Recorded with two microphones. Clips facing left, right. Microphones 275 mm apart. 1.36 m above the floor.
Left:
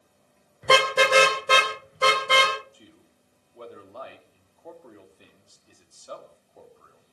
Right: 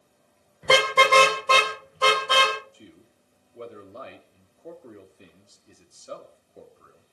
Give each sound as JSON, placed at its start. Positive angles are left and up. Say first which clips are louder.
{"t": 0.6, "sound": "a car horn", "louder": "even", "side_deg": 0, "distance_m": 3.0}
{"t": 2.7, "sound": "a man speaking", "louder": "right 4 dB", "side_deg": -25, "distance_m": 3.0}